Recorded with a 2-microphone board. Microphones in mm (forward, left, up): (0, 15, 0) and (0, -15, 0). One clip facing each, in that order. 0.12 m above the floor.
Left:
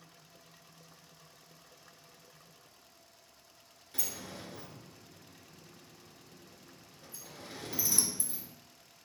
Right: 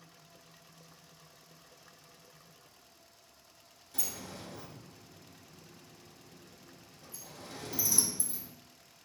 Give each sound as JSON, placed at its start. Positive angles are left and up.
{"t": 3.9, "sound": "a sliding door", "side_deg": 30, "distance_m": 0.8}